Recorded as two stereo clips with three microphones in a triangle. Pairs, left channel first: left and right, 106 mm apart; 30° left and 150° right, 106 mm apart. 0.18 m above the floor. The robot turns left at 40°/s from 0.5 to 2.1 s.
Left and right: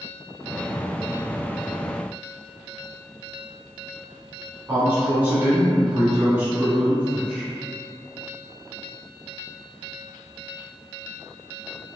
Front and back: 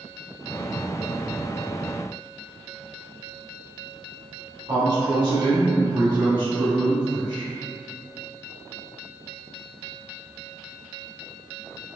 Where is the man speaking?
155° right, 2.0 m.